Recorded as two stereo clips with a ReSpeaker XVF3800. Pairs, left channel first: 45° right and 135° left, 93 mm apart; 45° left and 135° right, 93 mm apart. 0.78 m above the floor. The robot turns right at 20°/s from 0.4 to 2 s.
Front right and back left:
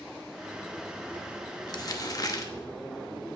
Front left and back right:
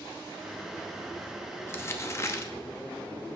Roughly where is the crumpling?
Ahead.